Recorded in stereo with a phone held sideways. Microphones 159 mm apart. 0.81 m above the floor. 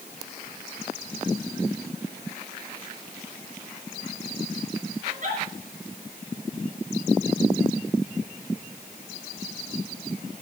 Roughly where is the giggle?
Right.